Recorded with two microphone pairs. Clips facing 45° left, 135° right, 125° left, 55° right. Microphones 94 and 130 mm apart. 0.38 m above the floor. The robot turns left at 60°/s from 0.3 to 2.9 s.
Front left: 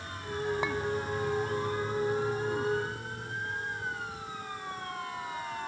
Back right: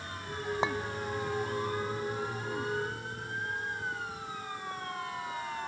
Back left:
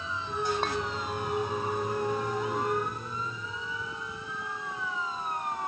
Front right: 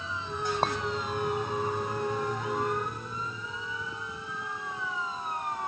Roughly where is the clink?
Right.